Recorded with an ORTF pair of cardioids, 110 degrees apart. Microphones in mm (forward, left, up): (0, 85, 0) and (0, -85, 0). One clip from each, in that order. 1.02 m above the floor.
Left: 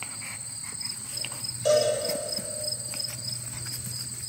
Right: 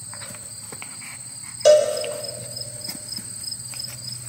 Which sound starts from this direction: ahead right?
A cowbell, at 1.6 s.